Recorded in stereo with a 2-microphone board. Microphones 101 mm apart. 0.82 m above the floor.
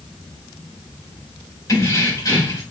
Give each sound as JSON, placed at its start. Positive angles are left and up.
{"t": 1.7, "sound": "keys jangling", "side_deg": 35, "distance_m": 2.0}